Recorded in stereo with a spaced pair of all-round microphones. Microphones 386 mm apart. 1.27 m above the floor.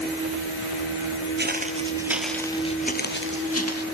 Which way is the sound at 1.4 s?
25° right (ahead or behind).